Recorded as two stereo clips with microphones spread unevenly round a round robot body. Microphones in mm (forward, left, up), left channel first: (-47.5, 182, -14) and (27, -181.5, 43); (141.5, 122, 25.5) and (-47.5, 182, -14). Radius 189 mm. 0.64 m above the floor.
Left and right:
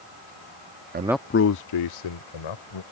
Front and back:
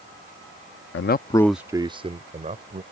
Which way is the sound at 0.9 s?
15° right.